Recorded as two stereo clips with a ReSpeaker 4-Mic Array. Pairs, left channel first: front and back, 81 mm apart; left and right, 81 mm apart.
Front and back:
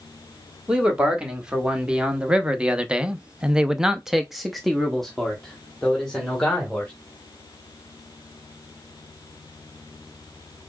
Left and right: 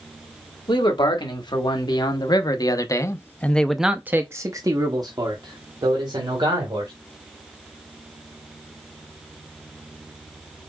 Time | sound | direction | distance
0.7 | a man speaking | 100° left | 1.8 m